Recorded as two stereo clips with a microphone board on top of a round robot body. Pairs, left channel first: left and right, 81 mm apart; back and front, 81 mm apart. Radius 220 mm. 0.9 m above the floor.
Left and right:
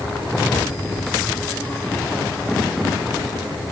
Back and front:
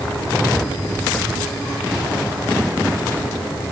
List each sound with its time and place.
Only background noise.